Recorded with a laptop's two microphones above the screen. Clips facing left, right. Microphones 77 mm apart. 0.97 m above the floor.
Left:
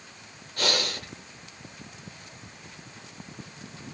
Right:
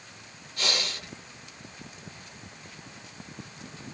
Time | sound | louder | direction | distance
0.6 | breathing | left 4 dB | 45° left (ahead or behind) | 0.8 m